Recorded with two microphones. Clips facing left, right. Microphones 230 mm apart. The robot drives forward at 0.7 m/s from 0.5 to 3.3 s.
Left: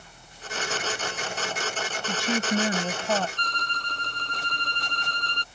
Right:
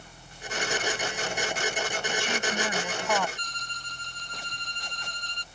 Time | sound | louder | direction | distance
2.1 | a woman speaking | left 9 dB | 45° left (ahead or behind) | ?
3.4 | a violin | left 9 dB | 70° left (ahead or behind) | ?